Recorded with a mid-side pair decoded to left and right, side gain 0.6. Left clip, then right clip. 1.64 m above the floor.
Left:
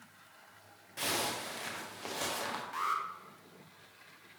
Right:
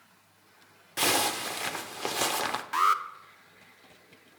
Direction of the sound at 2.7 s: 55° right.